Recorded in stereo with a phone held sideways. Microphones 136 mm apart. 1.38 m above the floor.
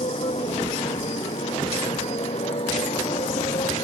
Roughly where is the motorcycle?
Left.